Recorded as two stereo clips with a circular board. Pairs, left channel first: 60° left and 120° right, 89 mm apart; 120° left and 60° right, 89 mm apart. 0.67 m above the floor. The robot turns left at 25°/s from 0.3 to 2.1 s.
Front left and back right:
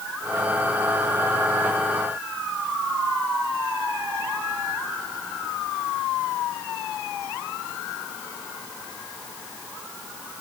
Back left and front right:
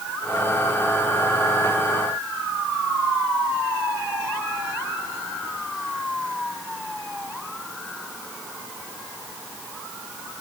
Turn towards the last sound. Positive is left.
No sound to turn to.